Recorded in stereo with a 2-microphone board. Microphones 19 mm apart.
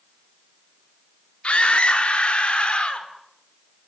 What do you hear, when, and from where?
1.4 s a scream: 80° left, 3 m; by 3.1 s 75° left (ahead or behind), 4 m